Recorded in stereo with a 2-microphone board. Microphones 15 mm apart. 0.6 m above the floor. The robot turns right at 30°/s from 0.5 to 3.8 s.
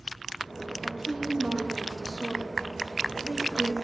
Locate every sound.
0.8 s a woman speaking: 145° right, 1.4 m; by 3.8 s 55° right, 1.4 m